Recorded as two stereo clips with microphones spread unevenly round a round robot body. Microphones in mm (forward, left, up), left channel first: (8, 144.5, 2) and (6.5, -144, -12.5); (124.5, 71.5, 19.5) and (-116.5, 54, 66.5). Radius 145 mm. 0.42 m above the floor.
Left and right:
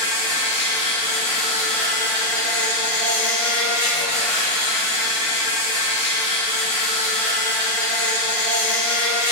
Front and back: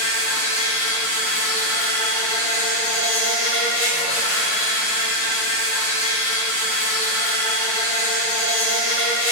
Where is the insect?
20° left, 1.7 m.